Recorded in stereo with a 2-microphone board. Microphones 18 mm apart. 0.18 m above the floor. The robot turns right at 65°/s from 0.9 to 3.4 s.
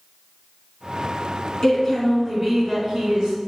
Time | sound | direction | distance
1.6 | a woman speaking | 150° left | 1.4 m